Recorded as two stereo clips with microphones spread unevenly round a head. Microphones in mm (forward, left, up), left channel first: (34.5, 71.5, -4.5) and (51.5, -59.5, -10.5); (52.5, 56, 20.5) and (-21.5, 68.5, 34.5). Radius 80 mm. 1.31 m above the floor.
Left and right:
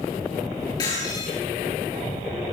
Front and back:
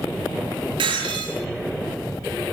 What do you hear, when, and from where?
0.8 s breaking glass: 165° left, 8.5 m